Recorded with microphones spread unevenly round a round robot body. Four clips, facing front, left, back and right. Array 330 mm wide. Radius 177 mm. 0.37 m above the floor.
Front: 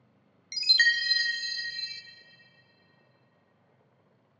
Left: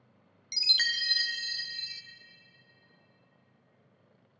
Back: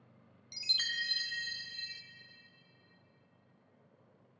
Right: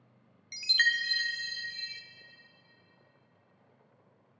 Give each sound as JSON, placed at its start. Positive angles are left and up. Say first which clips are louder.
{"t": 0.5, "sound": "a chime", "louder": "right 6 dB, front 15 dB", "azimuth_deg": 20, "distance_m": 0.6}